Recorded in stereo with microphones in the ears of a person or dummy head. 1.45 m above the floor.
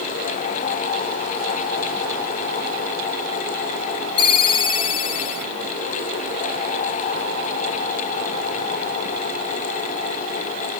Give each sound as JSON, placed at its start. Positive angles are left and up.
{"t": 4.2, "sound": "a ringtone", "side_deg": 35, "distance_m": 1.2}